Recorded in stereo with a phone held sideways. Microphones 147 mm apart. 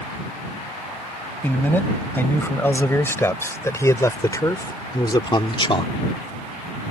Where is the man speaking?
15° left (ahead or behind); by 5.9 s 40° left (ahead or behind).